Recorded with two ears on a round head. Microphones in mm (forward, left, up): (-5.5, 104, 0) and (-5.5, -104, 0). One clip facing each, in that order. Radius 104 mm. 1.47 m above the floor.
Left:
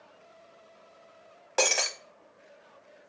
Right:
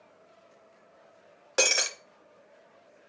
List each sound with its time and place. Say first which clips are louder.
1.6 s breaking glass: even; 20° right (ahead or behind), 0.7 m